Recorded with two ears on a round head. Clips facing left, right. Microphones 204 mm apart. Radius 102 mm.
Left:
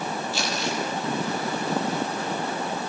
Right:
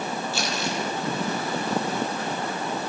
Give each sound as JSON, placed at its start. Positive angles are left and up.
{"t": 0.3, "sound": "crumpling", "side_deg": -80, "distance_m": 10.0}